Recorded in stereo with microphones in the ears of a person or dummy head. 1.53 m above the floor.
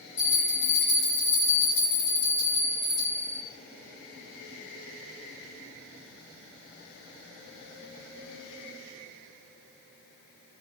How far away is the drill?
I don't hear a drill.